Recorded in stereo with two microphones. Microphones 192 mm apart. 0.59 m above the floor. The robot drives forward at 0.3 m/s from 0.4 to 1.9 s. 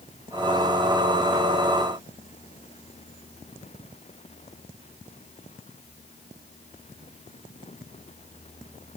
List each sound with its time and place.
Only background noise.